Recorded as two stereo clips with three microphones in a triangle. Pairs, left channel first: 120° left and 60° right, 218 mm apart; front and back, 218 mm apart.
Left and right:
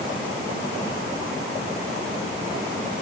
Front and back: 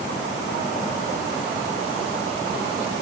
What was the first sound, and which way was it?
Only background noise.